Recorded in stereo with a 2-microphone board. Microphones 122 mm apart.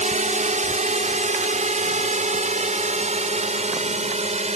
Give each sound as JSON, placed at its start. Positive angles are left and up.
{"t": 0.0, "sound": "a drone", "side_deg": -70}